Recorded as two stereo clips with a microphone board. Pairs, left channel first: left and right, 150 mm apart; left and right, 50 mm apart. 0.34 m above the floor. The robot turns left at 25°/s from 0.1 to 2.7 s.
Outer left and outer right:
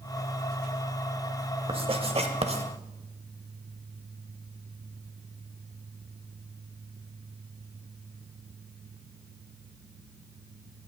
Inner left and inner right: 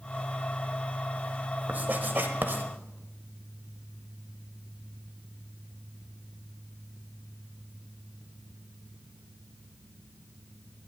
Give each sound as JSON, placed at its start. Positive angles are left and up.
{"t": 1.7, "sound": "writing", "side_deg": -35, "distance_m": 0.8}